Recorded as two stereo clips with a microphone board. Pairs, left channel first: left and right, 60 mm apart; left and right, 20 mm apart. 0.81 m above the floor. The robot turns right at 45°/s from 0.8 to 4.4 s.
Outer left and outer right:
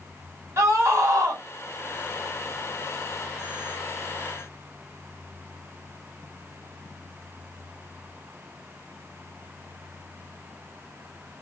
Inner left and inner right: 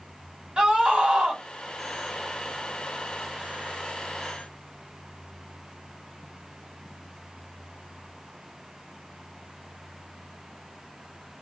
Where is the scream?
50° right (ahead or behind), 1.6 m; by 1.4 s 70° right (ahead or behind), 1.6 m.